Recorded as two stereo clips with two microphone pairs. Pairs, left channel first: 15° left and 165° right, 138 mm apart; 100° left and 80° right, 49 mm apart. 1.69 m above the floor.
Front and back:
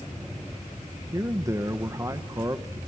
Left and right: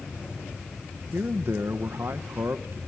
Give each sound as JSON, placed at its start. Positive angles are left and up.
{"t": 1.1, "sound": "a man speaking", "azimuth_deg": -105, "distance_m": 1.2}